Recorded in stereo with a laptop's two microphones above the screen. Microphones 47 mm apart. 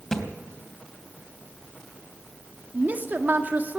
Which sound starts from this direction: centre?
A thud, at 0.1 s.